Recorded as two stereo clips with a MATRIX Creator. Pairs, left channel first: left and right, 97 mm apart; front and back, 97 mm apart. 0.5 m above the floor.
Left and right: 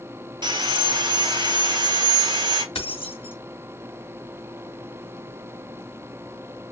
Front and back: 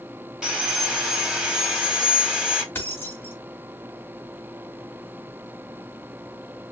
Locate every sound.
0.4 s sawing: 100° right, 1.0 m
2.8 s keys jangling: 70° left, 2 m